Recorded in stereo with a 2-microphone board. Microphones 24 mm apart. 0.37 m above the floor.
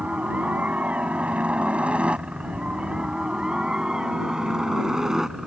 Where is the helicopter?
65° right (ahead or behind); by 5.5 s 20° right (ahead or behind).